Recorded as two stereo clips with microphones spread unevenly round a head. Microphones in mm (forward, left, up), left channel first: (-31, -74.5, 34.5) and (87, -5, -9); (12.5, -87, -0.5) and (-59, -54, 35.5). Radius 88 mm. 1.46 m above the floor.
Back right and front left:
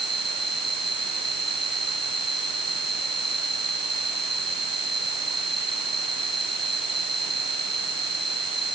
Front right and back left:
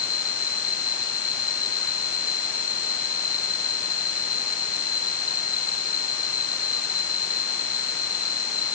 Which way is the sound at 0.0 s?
60° right.